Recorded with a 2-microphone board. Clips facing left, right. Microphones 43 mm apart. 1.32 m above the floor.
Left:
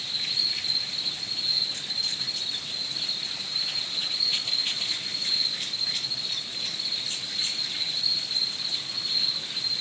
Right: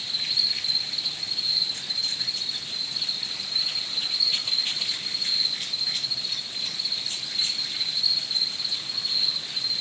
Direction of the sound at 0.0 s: 35° left (ahead or behind).